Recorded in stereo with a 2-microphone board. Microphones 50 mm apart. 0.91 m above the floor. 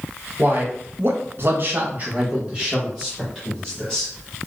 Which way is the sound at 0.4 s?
40° right (ahead or behind).